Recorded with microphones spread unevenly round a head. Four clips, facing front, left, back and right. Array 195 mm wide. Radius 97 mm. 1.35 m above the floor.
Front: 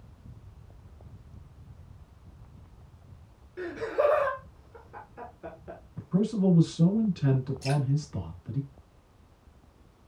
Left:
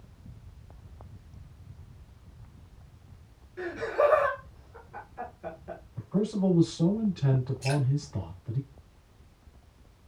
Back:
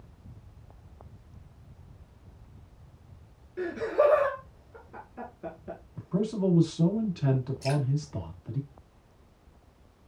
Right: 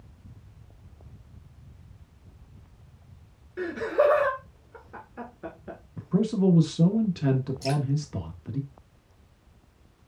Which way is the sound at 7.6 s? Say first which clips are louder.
Right 2 dB, back 2 dB; 130° right.